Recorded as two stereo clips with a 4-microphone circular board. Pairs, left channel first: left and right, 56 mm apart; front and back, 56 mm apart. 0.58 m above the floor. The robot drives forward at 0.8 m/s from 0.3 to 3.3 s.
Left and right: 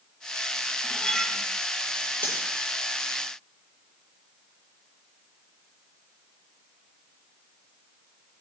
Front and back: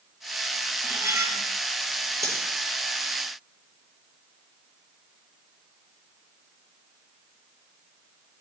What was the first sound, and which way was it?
Cutlery clinking, 160° left.